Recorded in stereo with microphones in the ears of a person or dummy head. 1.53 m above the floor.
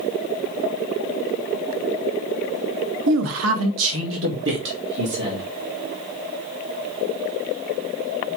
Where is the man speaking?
65° right (ahead or behind), 1.0 m; by 5.5 s 60° right (ahead or behind), 3 m.